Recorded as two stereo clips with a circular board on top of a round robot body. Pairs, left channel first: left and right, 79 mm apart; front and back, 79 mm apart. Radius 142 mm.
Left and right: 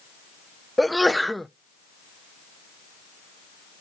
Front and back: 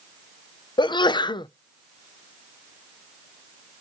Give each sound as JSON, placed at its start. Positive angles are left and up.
{"t": 0.8, "sound": "a sneeze", "azimuth_deg": 0, "distance_m": 0.5}